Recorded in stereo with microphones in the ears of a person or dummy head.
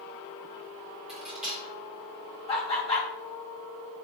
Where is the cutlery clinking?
5° right (ahead or behind), 0.6 m.